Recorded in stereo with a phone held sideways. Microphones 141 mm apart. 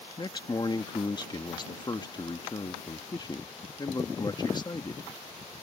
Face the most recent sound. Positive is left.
turn(degrees=30)  # may be behind; listen again after turning